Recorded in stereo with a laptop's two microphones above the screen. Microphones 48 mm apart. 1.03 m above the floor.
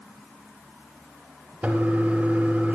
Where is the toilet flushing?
30° right (ahead or behind), 5.5 m.